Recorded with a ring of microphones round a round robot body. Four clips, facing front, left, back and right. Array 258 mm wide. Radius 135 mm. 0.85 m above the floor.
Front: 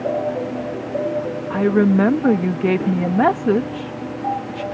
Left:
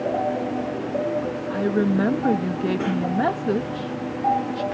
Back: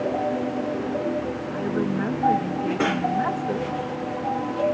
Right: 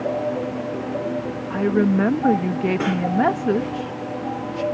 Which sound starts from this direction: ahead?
A woman speaking, at 1.5 s.